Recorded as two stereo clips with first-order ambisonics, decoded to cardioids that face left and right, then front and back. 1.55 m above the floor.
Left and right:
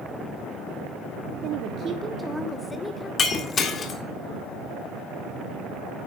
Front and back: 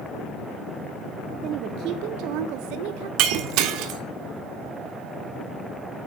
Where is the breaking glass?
160° left, 2 m.